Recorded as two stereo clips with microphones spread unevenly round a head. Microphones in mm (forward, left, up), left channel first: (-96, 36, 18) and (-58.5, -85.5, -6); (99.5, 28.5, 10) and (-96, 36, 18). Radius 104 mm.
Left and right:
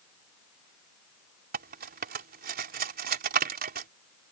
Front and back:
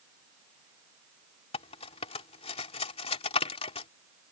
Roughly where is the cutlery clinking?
Ahead right.